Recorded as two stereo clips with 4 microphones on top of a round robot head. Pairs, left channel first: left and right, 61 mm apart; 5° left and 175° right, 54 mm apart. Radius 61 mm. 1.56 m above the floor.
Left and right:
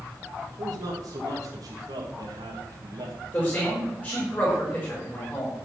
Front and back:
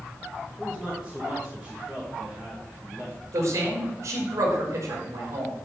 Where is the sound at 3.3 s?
160° left, 6 m.